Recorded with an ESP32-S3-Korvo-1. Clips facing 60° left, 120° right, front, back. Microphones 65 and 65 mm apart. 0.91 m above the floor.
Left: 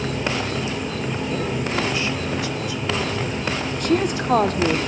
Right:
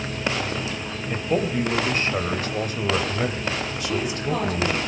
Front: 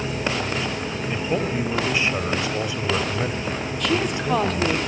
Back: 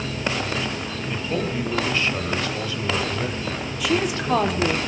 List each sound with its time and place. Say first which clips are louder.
0.0 s an insect: left 3 dB, front 1 dB; 70° left, 3 m
1.1 s a man speaking: right 5 dB, front 2 dB; 75° right, 3.5 m
3.8 s a woman speaking: left 8 dB, back 1 dB; 95° left, 2.5 m